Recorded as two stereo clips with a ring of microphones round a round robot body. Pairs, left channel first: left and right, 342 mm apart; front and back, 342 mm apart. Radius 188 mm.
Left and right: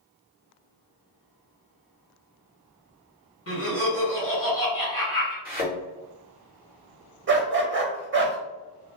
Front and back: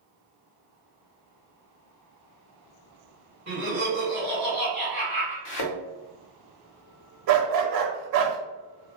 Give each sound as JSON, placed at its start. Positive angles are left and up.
{"t": 3.5, "sound": "laughter", "azimuth_deg": 125, "distance_m": 1.6}
{"t": 5.5, "sound": "a thud", "azimuth_deg": 20, "distance_m": 0.7}
{"t": 7.3, "sound": "a dog barking", "azimuth_deg": -150, "distance_m": 0.9}